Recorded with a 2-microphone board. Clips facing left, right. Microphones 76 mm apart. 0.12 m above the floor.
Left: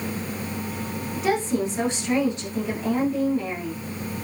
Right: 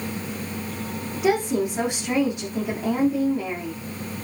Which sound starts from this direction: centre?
A woman speaking, at 1.1 s.